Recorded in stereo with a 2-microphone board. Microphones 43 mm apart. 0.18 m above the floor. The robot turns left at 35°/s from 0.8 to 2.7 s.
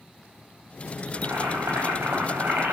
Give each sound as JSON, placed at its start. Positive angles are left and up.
{"t": 1.1, "sound": "boiling", "azimuth_deg": -75, "distance_m": 4.5}